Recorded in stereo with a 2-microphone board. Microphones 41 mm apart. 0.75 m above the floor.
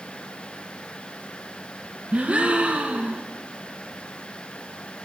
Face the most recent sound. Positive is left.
turn(degrees=-30)  # may be behind; listen again after turning